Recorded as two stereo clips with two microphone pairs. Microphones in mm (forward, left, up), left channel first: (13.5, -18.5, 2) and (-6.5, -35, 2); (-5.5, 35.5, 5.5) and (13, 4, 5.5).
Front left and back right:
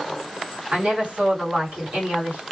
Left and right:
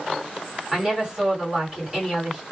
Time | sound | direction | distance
0.7 | a woman speaking | 130° right | 2.0 m